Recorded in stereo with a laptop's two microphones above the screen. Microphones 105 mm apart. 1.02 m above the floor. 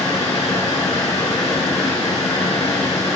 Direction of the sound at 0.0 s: 80° left.